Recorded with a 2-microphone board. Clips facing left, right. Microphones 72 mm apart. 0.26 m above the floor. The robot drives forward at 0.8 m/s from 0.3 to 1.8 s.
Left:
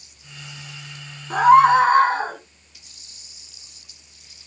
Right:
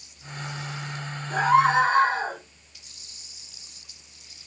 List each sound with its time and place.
1.3 s a scream: 60° left (ahead or behind), 2.5 m